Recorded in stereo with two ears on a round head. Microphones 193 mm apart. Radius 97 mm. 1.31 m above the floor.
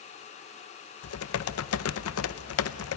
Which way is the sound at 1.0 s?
75° left (ahead or behind).